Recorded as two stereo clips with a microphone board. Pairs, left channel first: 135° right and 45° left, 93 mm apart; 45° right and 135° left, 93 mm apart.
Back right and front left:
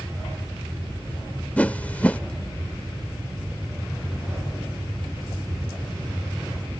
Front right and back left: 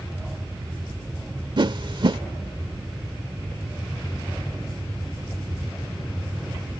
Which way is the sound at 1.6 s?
155° left.